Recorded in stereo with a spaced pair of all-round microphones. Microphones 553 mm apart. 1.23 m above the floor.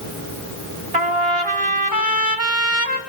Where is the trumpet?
65° right (ahead or behind), 2.5 m.